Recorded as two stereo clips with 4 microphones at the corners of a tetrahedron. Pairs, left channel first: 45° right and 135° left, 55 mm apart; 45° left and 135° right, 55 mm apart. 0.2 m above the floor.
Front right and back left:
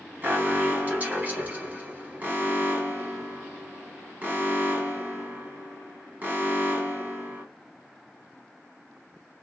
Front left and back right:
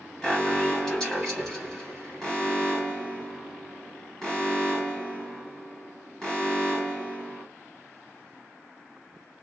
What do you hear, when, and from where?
0.2 s an alarm: 115° left, 1.0 m